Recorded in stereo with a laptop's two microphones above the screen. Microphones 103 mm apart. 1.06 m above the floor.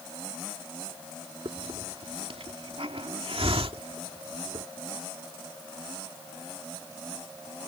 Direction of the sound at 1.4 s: 65° right (ahead or behind).